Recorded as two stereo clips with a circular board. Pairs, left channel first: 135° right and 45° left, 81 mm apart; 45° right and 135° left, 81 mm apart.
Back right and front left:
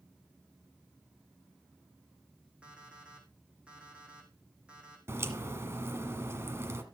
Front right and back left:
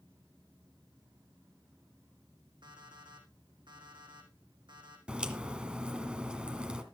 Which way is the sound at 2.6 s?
125° left.